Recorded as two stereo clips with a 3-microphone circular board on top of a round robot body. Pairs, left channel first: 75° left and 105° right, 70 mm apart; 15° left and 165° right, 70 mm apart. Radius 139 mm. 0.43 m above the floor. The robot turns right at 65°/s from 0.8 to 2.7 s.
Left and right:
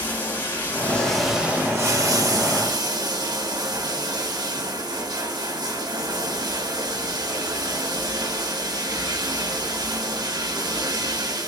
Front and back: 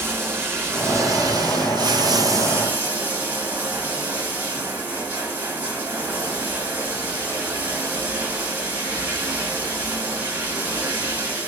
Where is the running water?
140° left, 2.5 m; by 11.5 s 100° right, 2.5 m.